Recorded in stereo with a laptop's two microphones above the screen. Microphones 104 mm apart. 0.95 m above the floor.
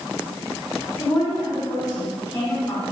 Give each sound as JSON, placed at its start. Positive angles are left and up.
{"t": 1.0, "sound": "a woman speaking", "side_deg": 35, "distance_m": 3.0}